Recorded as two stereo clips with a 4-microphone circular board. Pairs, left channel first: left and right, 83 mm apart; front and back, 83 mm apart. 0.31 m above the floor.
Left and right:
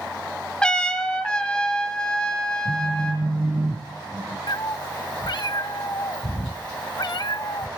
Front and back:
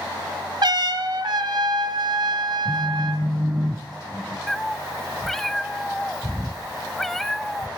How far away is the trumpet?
About 1.3 m.